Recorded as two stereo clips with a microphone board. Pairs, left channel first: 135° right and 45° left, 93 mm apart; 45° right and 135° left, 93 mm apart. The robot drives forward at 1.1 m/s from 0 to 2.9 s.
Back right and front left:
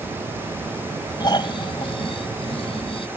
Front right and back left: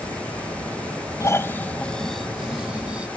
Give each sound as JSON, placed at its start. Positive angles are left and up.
{"t": 1.2, "sound": "snoring", "azimuth_deg": -100}